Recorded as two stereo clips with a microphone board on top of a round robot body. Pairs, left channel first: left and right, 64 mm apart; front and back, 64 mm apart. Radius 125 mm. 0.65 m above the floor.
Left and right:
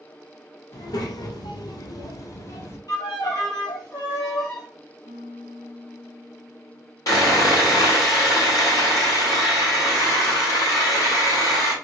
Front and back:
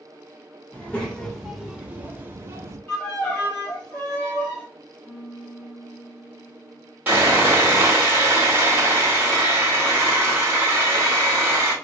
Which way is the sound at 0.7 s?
75° left.